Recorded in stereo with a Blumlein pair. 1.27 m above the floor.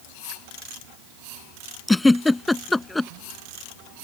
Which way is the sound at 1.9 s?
5° left.